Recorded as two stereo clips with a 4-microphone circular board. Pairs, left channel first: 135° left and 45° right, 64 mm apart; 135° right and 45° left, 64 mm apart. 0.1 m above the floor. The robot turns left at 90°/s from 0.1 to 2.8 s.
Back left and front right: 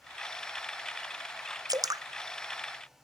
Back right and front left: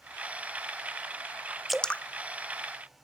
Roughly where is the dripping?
Ahead right.